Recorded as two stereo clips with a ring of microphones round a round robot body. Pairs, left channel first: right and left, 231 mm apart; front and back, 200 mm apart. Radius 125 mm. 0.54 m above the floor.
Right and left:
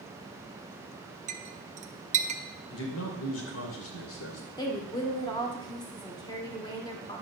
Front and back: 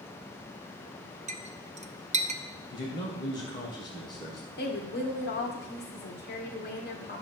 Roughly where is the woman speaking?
Ahead.